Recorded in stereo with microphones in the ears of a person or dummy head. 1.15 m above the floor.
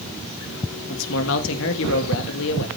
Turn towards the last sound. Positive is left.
turn(degrees=70)  # may be behind; listen again after turning